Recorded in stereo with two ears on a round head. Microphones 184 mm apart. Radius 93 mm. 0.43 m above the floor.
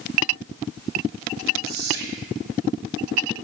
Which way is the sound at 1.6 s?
50° right (ahead or behind).